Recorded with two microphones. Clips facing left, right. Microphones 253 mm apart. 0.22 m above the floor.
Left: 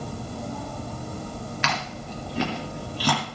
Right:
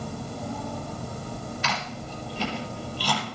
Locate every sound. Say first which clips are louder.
1.6 s chewing: left 1 dB; 70° left (ahead or behind), 2.5 m